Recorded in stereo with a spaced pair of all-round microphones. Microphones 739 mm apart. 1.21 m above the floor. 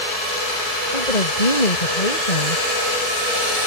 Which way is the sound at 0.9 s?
65° left (ahead or behind).